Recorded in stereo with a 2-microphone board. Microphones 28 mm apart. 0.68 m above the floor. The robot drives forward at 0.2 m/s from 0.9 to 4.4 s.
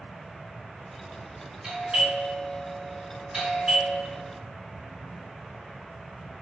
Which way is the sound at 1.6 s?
25° right (ahead or behind).